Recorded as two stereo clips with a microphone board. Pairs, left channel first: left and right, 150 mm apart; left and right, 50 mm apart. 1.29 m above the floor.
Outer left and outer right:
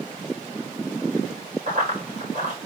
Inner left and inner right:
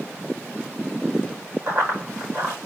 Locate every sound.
1.7 s running footsteps: 65° right (ahead or behind), 4.5 m